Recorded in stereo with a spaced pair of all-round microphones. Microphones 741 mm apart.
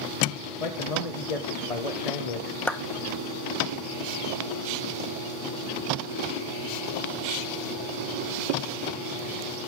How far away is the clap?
About 0.7 m.